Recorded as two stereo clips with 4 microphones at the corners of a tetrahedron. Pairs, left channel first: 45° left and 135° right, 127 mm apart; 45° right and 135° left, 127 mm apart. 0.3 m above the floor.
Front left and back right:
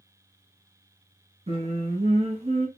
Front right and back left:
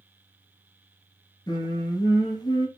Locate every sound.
1.5 s singing: 100° right, 0.9 m